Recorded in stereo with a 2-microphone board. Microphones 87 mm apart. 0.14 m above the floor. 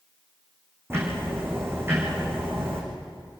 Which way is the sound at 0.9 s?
30° right (ahead or behind).